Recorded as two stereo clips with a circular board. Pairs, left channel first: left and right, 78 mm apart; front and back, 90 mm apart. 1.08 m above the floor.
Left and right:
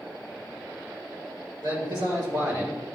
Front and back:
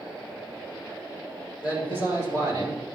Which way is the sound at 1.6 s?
105° right.